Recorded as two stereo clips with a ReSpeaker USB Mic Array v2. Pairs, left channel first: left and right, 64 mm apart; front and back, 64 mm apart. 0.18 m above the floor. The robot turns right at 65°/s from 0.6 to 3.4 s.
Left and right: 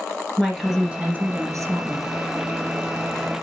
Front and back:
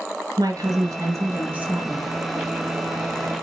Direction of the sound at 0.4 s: Straight behind.